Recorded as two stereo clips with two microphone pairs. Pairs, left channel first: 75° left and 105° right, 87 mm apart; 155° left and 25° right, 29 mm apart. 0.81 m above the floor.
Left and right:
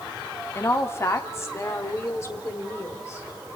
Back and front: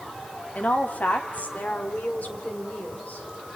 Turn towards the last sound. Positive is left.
turn(degrees=135)